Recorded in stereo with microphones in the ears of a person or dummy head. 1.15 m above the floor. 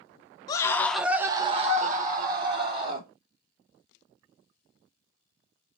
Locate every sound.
0.5 s a scream: 20° left (ahead or behind), 0.6 m; by 3.1 s 45° right (ahead or behind), 1.1 m